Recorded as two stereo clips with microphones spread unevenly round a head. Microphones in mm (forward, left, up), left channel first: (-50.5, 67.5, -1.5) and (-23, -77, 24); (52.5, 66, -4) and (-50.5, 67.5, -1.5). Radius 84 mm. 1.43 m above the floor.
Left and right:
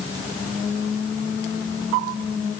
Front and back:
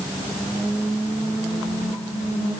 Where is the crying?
I don't hear crying.